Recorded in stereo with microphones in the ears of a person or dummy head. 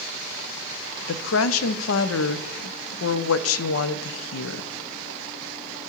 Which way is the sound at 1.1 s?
85° left.